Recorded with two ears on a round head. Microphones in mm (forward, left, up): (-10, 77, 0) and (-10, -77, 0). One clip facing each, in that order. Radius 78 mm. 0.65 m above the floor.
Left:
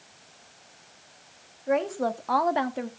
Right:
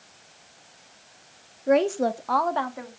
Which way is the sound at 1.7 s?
45° right (ahead or behind).